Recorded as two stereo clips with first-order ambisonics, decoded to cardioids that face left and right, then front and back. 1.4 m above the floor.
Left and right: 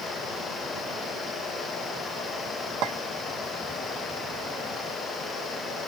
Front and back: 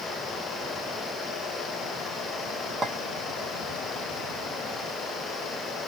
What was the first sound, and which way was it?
A clink, 110° right.